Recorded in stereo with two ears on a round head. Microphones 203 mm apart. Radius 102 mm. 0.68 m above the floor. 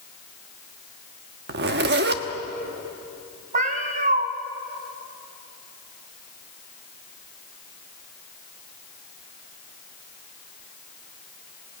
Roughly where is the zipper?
Right.